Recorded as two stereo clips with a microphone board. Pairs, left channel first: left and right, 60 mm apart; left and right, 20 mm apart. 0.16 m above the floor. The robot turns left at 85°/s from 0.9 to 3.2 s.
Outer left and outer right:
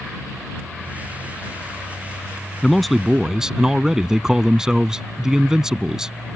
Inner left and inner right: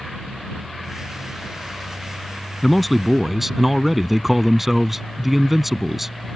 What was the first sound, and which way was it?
A man speaking, 10° left (ahead or behind).